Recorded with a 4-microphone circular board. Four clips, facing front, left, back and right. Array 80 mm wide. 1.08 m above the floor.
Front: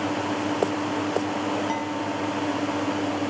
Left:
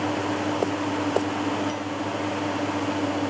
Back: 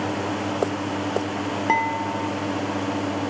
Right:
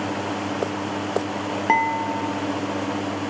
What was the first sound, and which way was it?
Dishes clattering, 120° right.